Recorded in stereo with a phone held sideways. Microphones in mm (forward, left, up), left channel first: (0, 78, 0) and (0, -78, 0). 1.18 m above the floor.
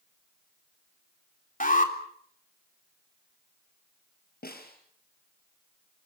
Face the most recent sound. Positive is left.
turn(degrees=80)